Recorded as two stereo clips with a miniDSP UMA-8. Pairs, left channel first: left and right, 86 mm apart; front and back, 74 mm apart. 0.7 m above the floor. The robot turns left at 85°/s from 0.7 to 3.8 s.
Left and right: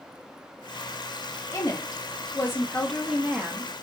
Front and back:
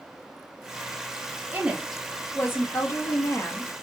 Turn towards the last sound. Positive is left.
turn(degrees=-70)